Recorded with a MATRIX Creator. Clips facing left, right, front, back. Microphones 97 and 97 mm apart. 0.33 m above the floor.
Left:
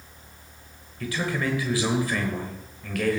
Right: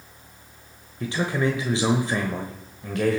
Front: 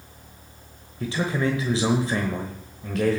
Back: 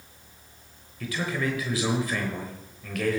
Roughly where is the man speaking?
Ahead right.